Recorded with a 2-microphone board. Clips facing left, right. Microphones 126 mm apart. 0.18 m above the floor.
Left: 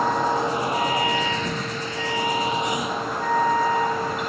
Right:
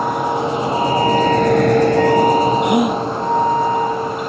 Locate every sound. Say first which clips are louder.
0.0 s a vehicle: right 3 dB; 15° right (ahead or behind); by 4.3 s 20° right (ahead or behind)
2.6 s a gasp: right 10 dB; 70° right (ahead or behind)